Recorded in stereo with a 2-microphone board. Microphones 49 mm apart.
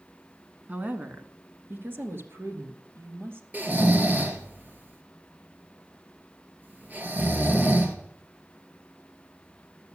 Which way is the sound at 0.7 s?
30° right (ahead or behind).